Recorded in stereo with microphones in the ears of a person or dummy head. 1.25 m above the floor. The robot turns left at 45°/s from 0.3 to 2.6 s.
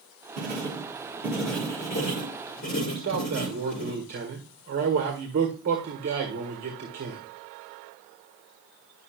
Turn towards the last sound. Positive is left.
turn(degrees=-50)  # may be behind; listen again after turning